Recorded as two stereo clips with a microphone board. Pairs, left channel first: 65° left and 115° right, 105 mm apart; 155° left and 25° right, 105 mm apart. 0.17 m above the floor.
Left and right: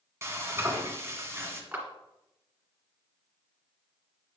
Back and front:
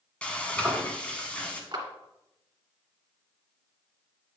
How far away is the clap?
About 2 m.